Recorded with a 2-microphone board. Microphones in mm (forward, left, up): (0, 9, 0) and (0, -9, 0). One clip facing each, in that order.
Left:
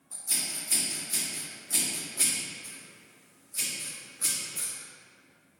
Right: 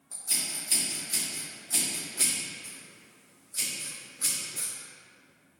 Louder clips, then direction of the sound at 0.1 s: Even; 25° right (ahead or behind).